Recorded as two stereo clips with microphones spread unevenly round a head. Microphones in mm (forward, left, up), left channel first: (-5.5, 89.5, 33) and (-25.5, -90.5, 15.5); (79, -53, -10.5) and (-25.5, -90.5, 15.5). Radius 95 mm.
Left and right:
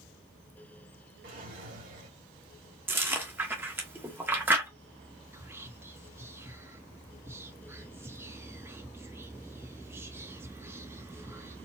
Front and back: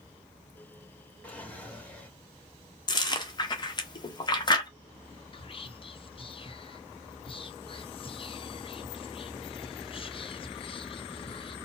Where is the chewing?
20° right, 1.0 m.